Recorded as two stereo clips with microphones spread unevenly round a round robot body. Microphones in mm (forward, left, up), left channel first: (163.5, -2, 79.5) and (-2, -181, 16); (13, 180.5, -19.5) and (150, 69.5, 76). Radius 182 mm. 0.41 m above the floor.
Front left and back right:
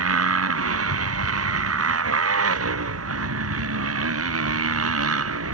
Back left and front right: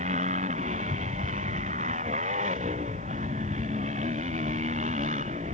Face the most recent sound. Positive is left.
turn(degrees=-110)